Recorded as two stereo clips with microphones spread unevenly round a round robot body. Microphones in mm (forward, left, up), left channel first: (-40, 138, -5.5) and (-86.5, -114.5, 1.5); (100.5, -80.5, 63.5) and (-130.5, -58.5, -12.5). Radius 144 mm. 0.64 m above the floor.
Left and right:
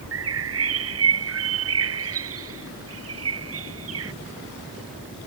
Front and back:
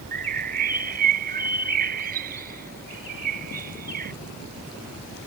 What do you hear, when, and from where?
0.1 s a bird: 130° right